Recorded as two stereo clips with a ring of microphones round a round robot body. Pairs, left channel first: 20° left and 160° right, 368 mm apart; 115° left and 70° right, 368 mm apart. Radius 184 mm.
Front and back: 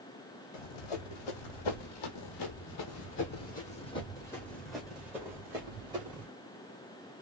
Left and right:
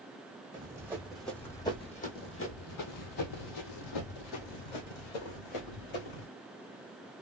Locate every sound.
0.5 s running footsteps: 10° left, 1.6 m; by 6.3 s 125° left, 2.5 m